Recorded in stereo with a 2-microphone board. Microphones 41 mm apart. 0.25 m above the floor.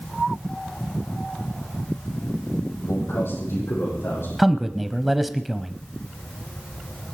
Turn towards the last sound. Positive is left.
turn(degrees=-5)  # may be behind; listen again after turning